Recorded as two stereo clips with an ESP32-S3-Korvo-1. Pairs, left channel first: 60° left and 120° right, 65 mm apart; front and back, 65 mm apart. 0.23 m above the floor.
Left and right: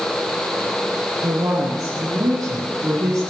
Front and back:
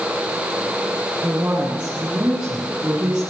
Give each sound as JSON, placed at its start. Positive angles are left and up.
{"t": 1.2, "sound": "a woman speaking", "azimuth_deg": -125, "distance_m": 5.5}